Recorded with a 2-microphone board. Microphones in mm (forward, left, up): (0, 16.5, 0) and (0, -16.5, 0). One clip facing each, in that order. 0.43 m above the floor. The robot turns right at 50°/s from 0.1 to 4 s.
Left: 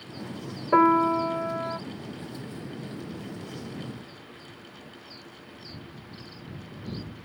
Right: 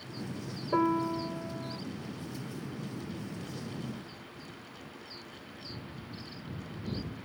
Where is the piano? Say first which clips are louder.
Left 9 dB; 55° left; by 1.8 s 110° left.